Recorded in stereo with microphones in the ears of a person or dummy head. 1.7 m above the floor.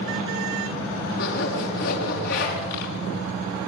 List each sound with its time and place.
1.2 s a zipper: 55° left (ahead or behind), 5.5 m